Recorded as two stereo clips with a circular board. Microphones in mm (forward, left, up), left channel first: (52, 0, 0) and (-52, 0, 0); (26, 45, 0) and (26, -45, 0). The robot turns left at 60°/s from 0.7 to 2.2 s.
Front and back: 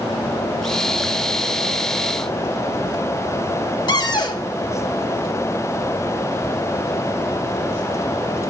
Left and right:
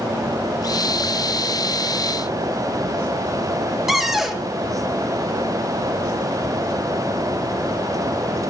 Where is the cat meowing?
No cat meowing in this recording.